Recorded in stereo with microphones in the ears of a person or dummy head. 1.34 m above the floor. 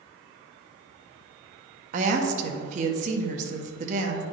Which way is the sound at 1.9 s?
45° right (ahead or behind).